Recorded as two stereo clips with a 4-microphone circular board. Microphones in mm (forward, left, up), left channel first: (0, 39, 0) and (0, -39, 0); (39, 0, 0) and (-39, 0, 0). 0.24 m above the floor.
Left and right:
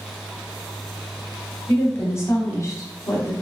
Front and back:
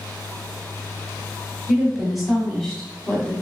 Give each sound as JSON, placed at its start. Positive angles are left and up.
{"t": 1.7, "sound": "a woman speaking", "azimuth_deg": 110, "distance_m": 1.1}